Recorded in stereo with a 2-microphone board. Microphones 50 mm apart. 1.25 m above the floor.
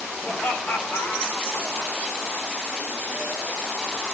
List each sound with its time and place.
0.2 s laughter: 25° left (ahead or behind), 4 m; by 1.9 s 65° left (ahead or behind), 3 m